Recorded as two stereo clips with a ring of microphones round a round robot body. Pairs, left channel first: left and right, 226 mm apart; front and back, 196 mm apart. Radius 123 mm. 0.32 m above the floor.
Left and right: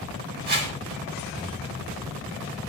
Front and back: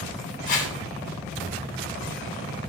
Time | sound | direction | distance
0.5 | a whoosh | 45° right | 2.5 m